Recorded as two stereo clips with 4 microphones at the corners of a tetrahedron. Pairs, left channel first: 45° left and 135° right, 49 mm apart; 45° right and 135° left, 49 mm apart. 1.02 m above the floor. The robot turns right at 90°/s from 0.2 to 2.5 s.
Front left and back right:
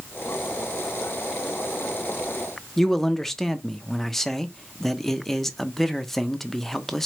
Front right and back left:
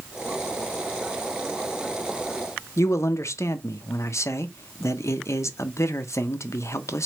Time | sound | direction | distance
2.8 | a man speaking | 40° right | 0.5 m